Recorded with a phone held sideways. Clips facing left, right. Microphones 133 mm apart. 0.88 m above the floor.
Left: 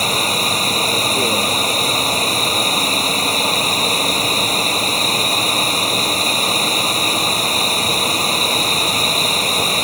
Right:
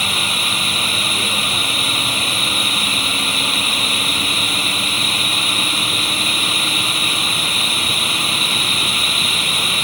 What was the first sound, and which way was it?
Running water, 40° left (ahead or behind).